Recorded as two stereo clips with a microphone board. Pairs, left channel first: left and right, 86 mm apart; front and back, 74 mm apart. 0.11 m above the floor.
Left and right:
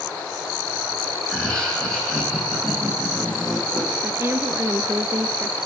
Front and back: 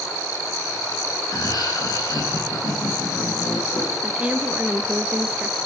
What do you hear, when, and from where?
1.3 s laughter: 10° left, 7 m; by 3.9 s 5° left, 8.5 m
4.0 s a woman speaking: 120° right, 1.2 m